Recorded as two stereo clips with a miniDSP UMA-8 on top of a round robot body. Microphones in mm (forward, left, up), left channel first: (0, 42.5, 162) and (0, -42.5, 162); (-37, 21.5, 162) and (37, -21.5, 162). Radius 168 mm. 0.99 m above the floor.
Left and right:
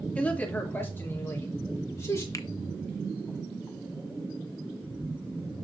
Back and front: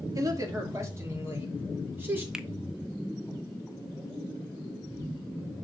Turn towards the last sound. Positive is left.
turn(degrees=50)